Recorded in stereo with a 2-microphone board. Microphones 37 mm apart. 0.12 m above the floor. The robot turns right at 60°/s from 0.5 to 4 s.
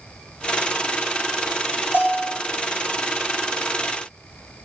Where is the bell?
70° left (ahead or behind), 3 m; by 2.4 s 45° left (ahead or behind), 3 m.